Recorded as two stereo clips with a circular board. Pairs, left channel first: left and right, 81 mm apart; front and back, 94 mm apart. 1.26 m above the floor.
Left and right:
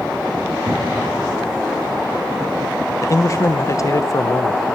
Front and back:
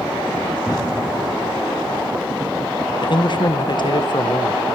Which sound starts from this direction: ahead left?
A man speaking, at 3.0 s.